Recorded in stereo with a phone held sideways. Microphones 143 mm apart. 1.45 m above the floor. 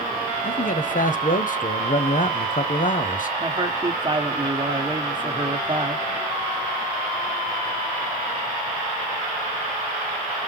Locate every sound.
0.4 s a man speaking: 60° left (ahead or behind), 0.6 m
3.4 s a man speaking: 30° right (ahead or behind), 1.1 m